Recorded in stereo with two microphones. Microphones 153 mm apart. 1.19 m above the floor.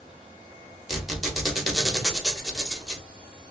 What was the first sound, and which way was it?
A squeak, centre (ahead or behind).